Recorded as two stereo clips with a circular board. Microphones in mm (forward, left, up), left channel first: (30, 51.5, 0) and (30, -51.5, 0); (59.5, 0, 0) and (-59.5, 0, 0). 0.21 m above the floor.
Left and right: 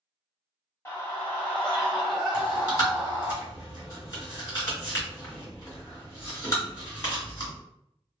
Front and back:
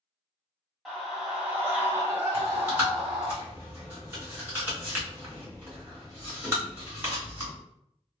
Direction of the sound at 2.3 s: 120° left.